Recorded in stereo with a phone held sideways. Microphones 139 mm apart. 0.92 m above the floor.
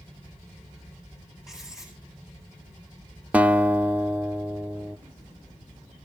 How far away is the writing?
About 8.5 m.